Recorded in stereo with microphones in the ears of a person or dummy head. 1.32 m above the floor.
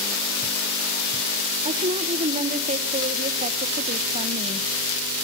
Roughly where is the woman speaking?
Right.